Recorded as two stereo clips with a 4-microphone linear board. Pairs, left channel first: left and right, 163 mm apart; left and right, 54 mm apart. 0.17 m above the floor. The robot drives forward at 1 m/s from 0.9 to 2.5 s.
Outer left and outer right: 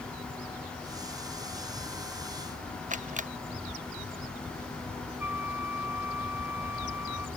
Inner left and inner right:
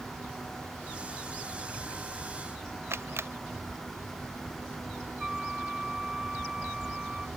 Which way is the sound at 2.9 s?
55° right (ahead or behind).